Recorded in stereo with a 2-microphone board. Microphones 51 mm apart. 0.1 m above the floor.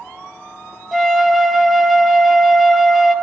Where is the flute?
Centre (ahead or behind), 0.5 m.